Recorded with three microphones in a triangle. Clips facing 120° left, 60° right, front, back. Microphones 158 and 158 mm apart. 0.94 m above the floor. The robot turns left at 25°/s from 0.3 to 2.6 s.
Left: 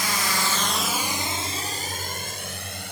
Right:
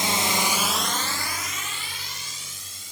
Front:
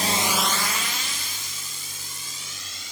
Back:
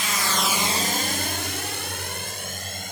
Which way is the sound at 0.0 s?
10° right.